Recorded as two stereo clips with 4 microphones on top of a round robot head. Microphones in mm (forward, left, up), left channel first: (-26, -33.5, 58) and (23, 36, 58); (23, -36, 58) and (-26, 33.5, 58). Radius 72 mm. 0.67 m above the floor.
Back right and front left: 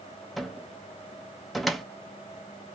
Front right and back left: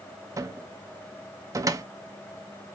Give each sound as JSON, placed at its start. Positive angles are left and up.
{"t": 0.4, "sound": "a cupboard door", "azimuth_deg": 145, "distance_m": 0.9}